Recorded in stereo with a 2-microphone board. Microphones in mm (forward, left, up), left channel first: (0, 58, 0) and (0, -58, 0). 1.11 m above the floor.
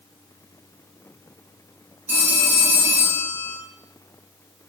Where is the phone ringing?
20° right (ahead or behind), 1.7 m.